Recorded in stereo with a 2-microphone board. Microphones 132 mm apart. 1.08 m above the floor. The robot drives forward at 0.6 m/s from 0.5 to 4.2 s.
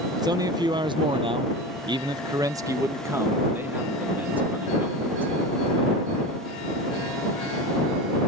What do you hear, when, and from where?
0.2 s a man speaking: 30° right (ahead or behind); by 5.3 s 15° right (ahead or behind)